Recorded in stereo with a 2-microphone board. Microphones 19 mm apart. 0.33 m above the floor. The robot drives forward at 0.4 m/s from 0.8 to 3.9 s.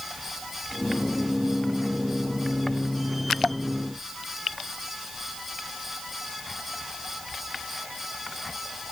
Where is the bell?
I don't hear a bell.